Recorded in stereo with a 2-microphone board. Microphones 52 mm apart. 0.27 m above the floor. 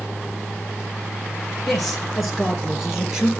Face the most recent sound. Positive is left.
turn(degrees=-15)  # may be behind; listen again after turning